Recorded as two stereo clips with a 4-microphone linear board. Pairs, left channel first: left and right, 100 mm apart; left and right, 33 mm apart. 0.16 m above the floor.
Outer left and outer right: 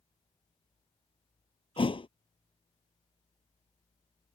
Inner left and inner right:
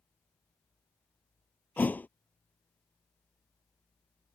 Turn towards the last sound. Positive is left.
turn(degrees=60)  # may be behind; listen again after turning